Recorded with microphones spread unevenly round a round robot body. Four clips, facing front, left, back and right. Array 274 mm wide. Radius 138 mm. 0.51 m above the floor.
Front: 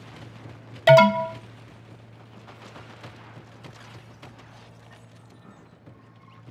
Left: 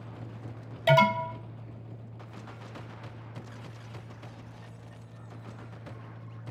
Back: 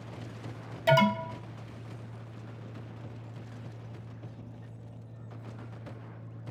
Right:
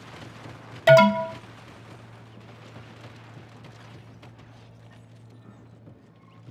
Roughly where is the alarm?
Ahead right.